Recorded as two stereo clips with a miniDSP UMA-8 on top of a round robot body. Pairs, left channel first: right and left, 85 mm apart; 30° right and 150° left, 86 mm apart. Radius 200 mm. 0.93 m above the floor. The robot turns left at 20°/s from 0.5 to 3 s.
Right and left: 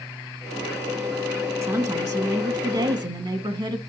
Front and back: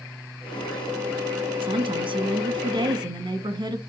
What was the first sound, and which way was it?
A woman speaking, 145° left.